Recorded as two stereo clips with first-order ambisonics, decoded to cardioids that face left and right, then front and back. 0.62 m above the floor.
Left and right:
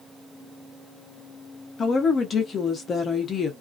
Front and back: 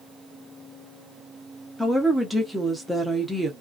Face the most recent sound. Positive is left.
turn(degrees=95)